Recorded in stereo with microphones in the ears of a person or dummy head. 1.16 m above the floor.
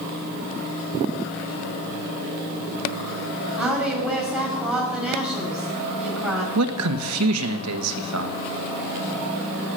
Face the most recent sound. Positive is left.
turn(degrees=-75)  # may be behind; listen again after turning